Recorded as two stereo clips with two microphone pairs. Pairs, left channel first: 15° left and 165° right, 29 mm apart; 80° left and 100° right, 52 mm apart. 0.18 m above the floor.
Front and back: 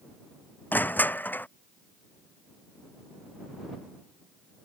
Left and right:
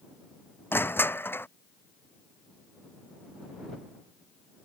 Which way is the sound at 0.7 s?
35° left.